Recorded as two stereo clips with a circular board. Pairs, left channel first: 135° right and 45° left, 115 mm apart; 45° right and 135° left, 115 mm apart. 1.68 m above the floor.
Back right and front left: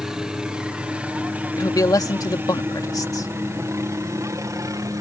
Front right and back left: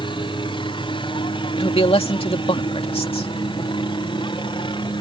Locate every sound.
0.0 s a helicopter: 40° right; by 5.0 s 10° right
1.6 s a man speaking: 80° right